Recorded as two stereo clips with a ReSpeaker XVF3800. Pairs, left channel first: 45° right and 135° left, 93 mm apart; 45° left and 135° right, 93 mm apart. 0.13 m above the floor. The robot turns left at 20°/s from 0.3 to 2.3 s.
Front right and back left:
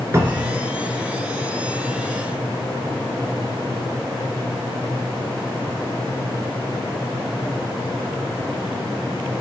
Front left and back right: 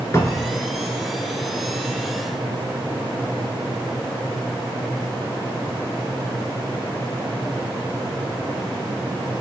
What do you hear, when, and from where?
0.1 s a cupboard door: 90° left, 0.6 m; by 0.6 s 85° left, 0.6 m